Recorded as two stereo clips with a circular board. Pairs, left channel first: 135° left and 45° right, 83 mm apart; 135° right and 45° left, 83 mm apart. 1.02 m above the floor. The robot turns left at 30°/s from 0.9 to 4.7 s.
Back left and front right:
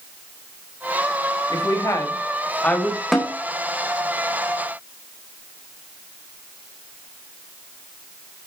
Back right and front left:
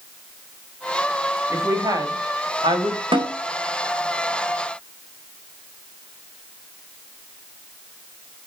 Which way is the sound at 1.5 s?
100° left.